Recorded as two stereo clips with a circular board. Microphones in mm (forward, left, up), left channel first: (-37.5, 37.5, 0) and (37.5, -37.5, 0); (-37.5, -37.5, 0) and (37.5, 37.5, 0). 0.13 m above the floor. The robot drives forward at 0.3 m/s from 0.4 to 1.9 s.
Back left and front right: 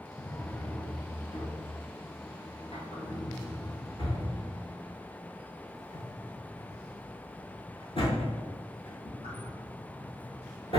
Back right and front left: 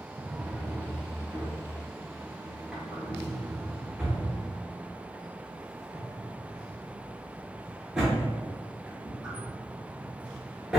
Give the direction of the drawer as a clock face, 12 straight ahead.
9 o'clock.